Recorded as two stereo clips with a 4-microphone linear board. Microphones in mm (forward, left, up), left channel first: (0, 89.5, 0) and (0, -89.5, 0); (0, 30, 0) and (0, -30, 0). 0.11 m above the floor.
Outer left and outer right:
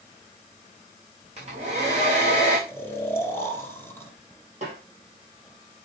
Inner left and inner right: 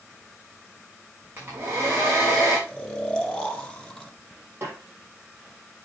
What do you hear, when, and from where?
1.4 s a hair dryer: 40° right (ahead or behind), 4.5 m
2.7 s snoring: 15° left (ahead or behind), 1.5 m
4.6 s a snare drum: 40° right (ahead or behind), 4 m